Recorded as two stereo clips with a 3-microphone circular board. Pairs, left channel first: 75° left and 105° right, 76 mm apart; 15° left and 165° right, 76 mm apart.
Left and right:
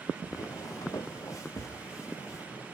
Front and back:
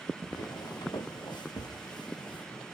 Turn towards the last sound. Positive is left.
turn(degrees=30)